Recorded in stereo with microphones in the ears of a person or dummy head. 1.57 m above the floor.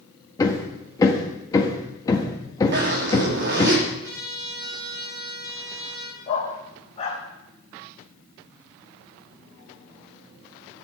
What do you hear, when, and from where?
0.4 s hammering: 15° left (ahead or behind), 1.9 m
2.7 s a zipper: 50° right (ahead or behind), 3.5 m
4.0 s a trumpet: 60° right (ahead or behind), 5 m
6.3 s a dog barking: 40° left (ahead or behind), 3.5 m